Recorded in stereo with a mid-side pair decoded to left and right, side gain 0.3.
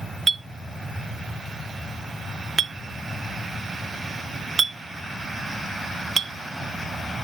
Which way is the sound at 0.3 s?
45° right.